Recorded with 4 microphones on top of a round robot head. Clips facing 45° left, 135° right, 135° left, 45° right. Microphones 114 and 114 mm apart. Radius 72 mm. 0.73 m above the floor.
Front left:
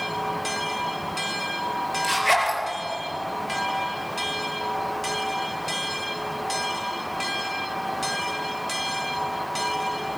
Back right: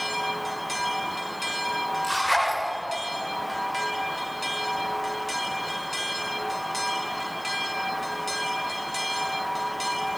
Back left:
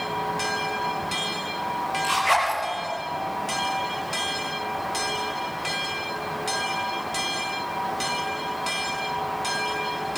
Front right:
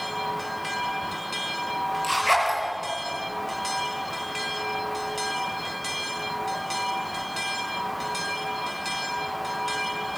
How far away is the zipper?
About 6 m.